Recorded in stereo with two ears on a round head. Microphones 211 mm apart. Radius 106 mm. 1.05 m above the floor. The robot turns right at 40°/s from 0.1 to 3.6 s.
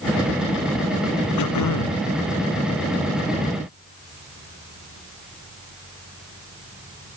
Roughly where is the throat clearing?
Left.